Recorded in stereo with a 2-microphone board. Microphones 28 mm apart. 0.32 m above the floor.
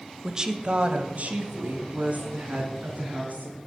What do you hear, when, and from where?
0.2 s a woman speaking: 15° right (ahead or behind), 1.0 m; by 3.6 s 80° right, 4.5 m